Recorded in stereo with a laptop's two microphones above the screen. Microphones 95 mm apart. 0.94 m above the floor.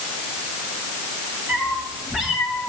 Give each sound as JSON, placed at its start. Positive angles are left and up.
{"t": 1.5, "sound": "a cat meowing", "side_deg": -15, "distance_m": 6.0}